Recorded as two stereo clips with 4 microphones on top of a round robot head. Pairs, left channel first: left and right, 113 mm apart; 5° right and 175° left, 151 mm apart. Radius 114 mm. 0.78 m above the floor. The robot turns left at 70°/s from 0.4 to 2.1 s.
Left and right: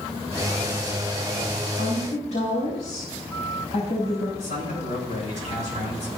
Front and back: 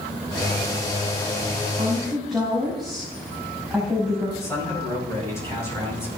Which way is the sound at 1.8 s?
110° left.